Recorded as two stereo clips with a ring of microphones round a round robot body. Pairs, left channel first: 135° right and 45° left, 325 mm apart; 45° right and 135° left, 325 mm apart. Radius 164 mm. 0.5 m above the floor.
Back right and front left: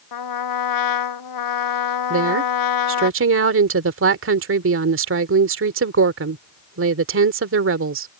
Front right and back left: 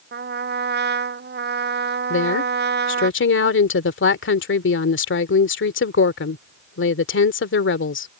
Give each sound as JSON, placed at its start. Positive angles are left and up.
{"t": 0.1, "sound": "a trumpet", "azimuth_deg": -165}
{"t": 2.1, "sound": "a woman speaking", "azimuth_deg": 0}